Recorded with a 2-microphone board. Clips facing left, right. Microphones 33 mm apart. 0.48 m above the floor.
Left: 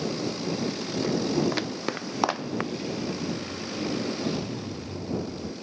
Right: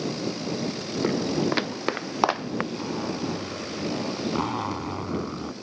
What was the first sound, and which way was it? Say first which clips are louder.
Footsteps: right 1 dB; 20° right (ahead or behind).